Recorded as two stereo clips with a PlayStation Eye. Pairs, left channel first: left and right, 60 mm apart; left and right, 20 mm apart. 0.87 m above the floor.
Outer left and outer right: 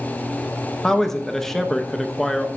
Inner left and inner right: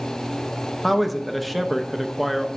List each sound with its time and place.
0.8 s a man speaking: 5° left (ahead or behind), 0.7 m